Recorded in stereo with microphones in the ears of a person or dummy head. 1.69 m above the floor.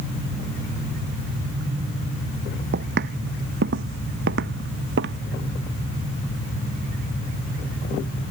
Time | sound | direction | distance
2.7 | footsteps | 65° right (ahead or behind) | ?